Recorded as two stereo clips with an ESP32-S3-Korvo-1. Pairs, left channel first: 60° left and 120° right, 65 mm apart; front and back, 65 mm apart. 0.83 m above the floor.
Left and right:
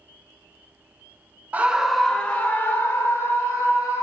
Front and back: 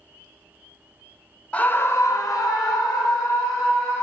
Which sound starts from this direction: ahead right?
A scream, at 1.5 s.